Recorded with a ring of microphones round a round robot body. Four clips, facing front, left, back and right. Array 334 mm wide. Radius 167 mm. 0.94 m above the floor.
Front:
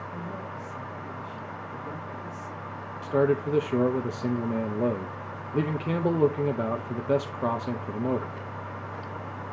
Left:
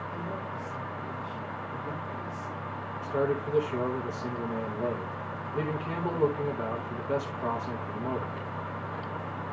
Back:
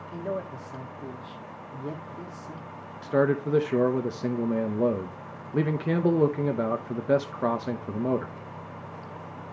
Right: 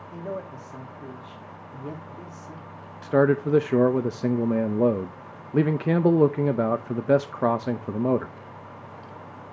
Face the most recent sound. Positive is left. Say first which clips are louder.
# right 9 dB, even
turn(degrees=-100)